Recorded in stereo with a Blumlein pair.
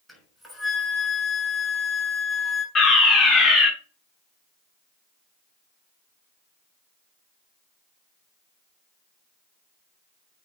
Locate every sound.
0.1 s a flute: straight ahead, 6 m
2.8 s a fire alarm: 20° left, 4 m